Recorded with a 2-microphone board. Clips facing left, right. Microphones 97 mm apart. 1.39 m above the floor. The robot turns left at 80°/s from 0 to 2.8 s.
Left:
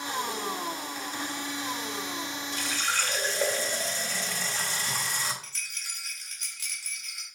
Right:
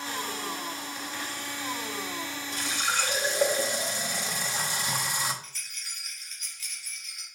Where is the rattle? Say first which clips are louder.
Left 3 dB; 65° left (ahead or behind), 1.8 m.